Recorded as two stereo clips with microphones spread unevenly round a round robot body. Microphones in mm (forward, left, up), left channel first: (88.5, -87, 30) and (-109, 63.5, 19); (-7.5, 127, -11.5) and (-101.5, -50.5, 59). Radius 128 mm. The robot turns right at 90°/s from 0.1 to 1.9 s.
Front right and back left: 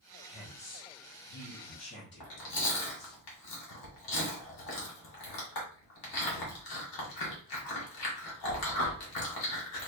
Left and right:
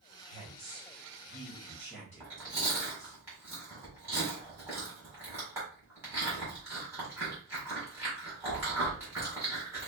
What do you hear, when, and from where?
0.2 s a woman speaking: 135° right, 1.7 m; by 3.2 s 10° left, 1.7 m
2.2 s chewing: 40° right, 1.6 m